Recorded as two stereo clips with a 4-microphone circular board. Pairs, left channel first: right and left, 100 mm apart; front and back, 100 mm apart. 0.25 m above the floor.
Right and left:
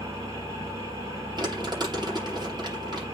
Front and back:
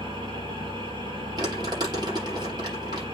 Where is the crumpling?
135° left, 8.5 m.